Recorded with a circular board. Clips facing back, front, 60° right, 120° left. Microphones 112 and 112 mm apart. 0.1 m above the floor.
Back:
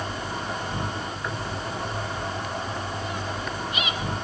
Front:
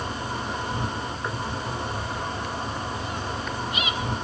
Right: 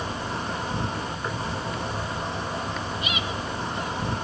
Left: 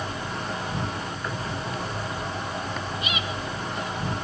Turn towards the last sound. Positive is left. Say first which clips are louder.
# front 1 dB, right 1 dB
turn(degrees=-45)